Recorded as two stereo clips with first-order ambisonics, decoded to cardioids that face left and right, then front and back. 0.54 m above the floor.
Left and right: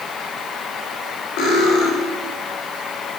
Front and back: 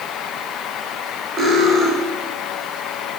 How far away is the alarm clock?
I don't hear an alarm clock.